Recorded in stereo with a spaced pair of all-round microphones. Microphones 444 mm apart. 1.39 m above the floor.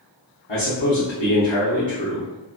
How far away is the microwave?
I don't hear a microwave.